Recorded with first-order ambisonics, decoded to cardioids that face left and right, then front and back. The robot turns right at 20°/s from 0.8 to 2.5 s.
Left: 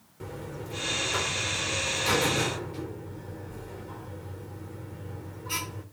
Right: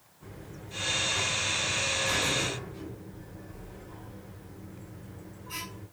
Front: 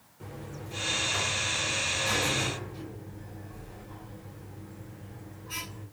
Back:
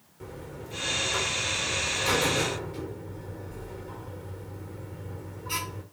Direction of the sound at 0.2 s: 100° left.